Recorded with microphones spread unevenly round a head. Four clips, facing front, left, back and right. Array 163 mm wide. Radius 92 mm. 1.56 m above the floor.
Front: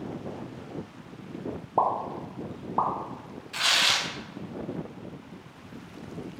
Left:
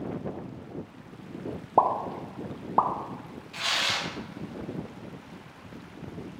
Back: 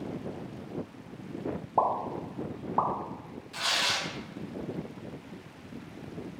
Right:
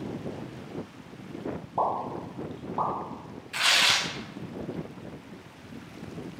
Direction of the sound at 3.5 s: 90° right.